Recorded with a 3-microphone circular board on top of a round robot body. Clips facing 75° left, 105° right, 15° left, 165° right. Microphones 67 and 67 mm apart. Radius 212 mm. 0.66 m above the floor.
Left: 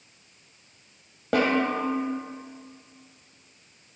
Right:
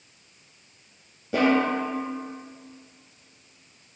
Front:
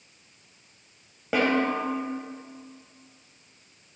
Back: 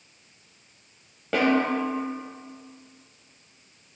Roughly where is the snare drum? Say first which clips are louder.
Right 2 dB, back 1 dB; left.